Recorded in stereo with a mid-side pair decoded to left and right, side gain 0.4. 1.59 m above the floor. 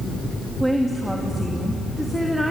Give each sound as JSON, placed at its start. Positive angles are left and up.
{"t": 0.6, "sound": "a woman speaking", "azimuth_deg": -15, "distance_m": 3.0}